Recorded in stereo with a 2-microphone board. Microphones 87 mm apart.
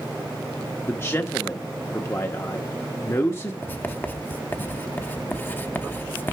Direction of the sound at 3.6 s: 20° left (ahead or behind).